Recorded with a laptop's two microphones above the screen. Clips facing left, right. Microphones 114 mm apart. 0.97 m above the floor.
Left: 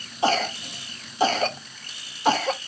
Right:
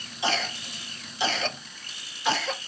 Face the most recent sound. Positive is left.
turn(degrees=45)  # may be behind; listen again after turning